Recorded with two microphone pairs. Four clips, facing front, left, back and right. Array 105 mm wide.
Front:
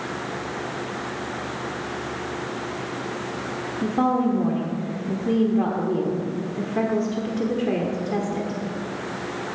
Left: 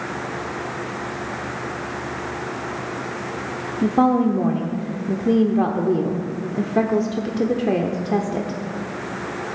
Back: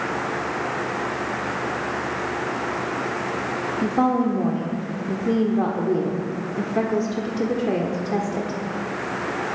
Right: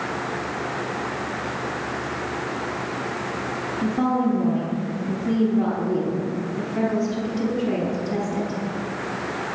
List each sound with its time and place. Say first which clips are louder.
3.8 s a woman speaking: left 5 dB, back 1 dB; 105° left, 1.0 m